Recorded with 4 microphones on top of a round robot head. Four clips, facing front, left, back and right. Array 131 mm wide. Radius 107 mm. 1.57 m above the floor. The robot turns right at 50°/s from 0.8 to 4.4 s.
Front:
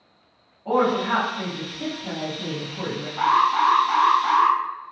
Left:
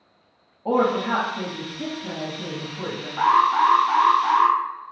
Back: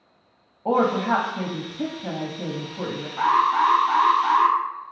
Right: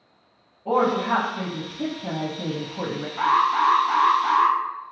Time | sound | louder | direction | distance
0.7 | a woman speaking | even, even | 160° left | 0.5 m
3.2 | an alarm | left 2 dB, even | 100° left | 0.5 m